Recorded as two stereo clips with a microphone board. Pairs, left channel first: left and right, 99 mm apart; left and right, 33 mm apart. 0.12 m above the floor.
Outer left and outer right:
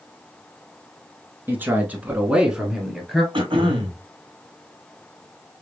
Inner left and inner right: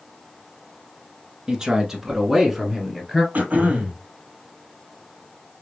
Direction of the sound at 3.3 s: 60° right (ahead or behind).